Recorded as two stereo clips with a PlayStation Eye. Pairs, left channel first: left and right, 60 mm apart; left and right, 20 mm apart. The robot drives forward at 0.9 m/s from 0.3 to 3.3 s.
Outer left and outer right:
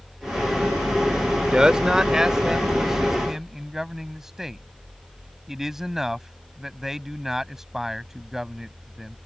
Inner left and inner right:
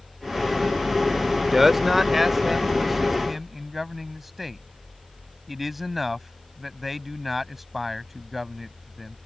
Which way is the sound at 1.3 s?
15° right (ahead or behind).